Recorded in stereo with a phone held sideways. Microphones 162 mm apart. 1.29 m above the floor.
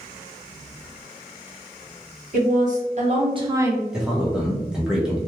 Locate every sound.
2.3 s a woman speaking: 55° right (ahead or behind), 1.3 m; by 3.8 s 5° right (ahead or behind), 0.6 m
3.9 s a man speaking: 5° right (ahead or behind), 1.0 m